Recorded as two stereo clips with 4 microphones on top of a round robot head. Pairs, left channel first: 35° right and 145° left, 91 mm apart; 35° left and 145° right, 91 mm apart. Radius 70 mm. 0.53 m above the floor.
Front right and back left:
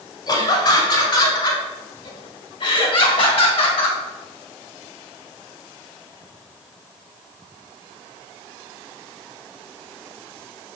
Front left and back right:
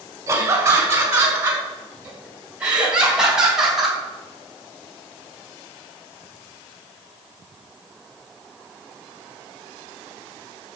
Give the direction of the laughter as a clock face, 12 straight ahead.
3 o'clock.